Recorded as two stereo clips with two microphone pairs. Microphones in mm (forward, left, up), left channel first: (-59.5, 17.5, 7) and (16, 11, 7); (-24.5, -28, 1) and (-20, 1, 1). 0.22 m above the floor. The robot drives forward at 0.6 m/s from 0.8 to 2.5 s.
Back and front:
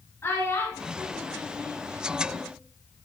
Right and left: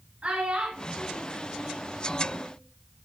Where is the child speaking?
125° left, 2 m; by 2.5 s 140° left, 3 m.